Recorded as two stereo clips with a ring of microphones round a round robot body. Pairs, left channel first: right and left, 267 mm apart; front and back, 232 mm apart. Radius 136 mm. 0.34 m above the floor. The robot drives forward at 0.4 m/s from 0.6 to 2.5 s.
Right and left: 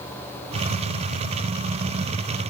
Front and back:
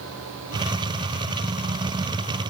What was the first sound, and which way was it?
Only background noise.